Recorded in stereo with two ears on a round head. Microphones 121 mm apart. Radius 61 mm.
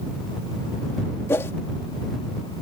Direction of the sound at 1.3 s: 20° left (ahead or behind).